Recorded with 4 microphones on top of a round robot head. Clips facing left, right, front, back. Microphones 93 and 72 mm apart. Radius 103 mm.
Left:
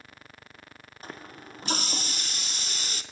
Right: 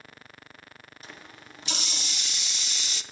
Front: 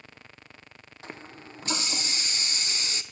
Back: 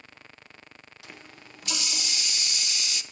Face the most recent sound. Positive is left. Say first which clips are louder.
# left 6 dB, front 6 dB
turn(degrees=50)